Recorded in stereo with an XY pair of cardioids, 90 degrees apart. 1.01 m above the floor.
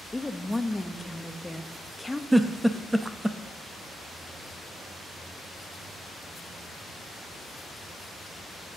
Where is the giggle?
10° right, 0.7 m.